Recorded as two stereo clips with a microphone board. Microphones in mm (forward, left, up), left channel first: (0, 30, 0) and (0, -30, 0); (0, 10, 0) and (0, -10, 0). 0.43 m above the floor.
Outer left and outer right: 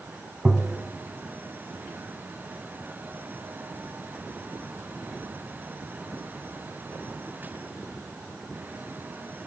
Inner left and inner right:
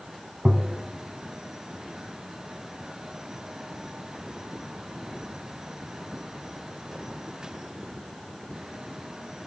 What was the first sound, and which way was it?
Tapping, 10° right (ahead or behind).